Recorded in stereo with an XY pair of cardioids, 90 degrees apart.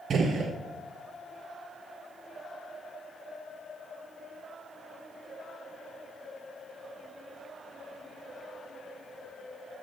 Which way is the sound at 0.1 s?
60° right.